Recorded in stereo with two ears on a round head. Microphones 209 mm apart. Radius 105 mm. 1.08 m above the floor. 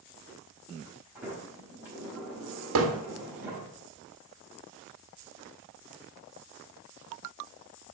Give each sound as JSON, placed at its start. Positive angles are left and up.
{"t": 1.1, "sound": "a sliding door", "side_deg": -10, "distance_m": 4.5}
{"t": 2.8, "sound": "hammering", "side_deg": -60, "distance_m": 1.8}